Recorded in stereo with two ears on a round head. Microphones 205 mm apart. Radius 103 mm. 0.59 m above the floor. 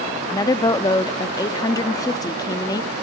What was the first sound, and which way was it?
A woman speaking, 15° left (ahead or behind).